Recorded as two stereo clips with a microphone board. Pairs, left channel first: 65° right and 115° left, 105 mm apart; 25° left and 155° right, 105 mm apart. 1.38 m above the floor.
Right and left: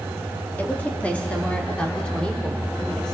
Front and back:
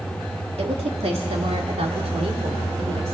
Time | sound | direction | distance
0.6 | a woman speaking | 140° right | 2.5 m